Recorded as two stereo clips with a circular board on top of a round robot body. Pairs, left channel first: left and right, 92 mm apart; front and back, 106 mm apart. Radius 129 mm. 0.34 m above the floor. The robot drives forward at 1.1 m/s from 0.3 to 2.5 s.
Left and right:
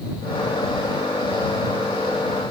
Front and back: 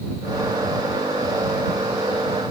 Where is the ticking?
No ticking in this recording.